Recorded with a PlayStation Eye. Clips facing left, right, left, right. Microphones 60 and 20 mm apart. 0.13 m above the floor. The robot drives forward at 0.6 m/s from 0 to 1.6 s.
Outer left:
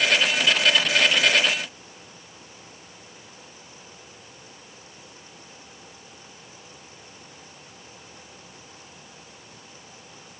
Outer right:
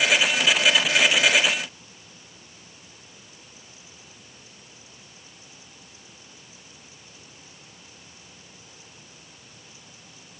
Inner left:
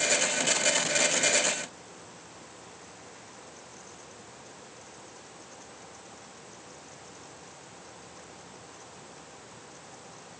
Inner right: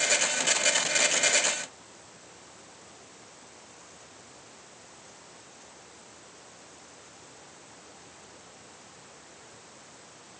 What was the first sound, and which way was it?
Only background noise.